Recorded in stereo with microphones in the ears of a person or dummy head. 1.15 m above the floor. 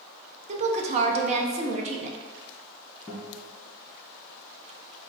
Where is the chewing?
I don't hear chewing.